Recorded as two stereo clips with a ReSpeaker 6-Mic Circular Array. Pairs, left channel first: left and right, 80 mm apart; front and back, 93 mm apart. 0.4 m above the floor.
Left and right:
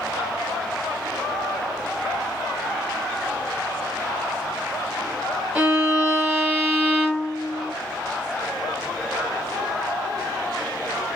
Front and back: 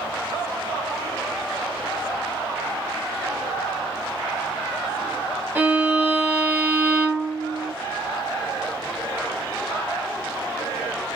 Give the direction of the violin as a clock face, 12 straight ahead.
5 o'clock.